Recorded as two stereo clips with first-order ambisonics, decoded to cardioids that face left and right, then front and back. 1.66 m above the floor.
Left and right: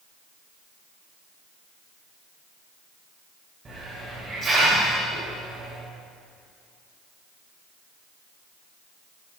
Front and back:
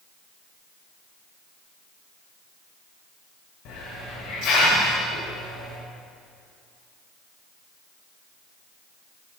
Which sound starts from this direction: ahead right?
A hiss, at 3.6 s.